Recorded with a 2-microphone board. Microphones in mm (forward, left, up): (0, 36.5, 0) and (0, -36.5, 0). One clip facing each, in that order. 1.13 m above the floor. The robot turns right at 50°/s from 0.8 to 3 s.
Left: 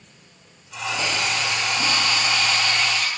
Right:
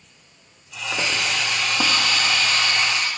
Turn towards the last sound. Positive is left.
turn(degrees=-30)